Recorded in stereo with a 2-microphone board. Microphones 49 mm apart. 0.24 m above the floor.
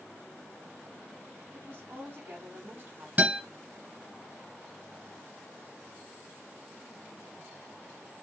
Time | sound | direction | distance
1.5 | a woman speaking | 50° right (ahead or behind) | 2 m
3.2 | a guitar | 35° right (ahead or behind) | 1.7 m